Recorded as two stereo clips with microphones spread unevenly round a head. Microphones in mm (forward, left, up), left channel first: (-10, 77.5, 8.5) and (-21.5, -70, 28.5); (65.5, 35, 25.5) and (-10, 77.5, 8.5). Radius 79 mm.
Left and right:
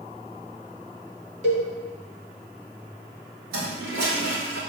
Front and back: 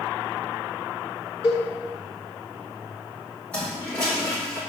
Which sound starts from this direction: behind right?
A cowbell, at 1.4 s.